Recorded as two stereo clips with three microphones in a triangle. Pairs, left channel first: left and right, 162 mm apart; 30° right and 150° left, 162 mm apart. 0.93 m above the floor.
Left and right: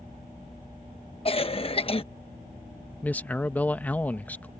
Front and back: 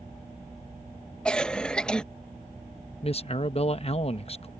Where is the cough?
50° left.